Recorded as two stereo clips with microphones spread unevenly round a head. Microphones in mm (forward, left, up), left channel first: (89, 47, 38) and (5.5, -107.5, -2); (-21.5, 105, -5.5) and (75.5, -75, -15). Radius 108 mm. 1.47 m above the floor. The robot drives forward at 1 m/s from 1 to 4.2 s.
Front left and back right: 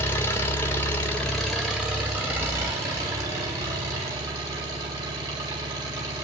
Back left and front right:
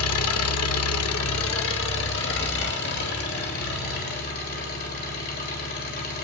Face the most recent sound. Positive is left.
turn(degrees=170)